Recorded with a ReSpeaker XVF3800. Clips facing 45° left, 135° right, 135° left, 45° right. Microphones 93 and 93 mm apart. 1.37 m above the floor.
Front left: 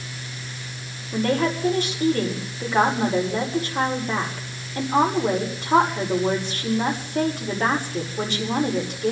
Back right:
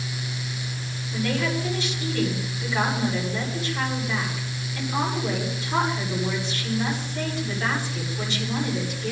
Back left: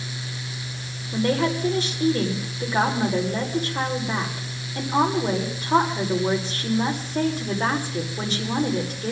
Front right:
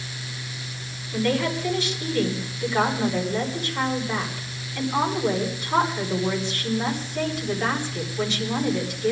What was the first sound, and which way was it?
A woman speaking, 85° left.